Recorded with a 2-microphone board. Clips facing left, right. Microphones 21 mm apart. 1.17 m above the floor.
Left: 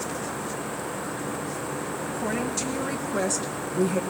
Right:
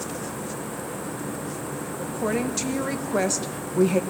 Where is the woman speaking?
15° right (ahead or behind), 2.5 m; by 4.0 s 30° right (ahead or behind), 1.0 m.